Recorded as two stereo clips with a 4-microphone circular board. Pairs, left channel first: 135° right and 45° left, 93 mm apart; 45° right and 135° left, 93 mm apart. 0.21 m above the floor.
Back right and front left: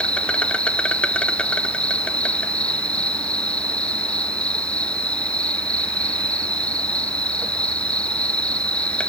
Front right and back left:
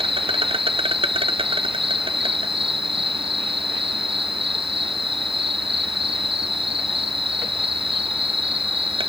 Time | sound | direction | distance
0.0 | an insect | 150° left | 0.8 m